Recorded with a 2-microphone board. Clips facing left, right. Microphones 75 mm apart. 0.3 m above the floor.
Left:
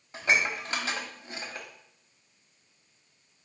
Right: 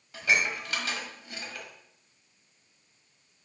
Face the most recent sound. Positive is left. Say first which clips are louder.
# even
turn(degrees=30)  # may be behind; listen again after turning